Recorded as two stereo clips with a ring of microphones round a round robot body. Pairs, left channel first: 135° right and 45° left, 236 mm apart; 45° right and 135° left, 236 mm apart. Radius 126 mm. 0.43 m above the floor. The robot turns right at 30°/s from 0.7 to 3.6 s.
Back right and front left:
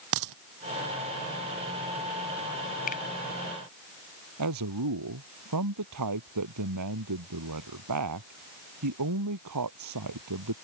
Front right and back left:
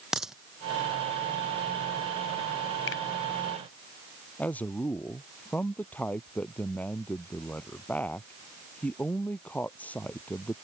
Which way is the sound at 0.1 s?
45° left.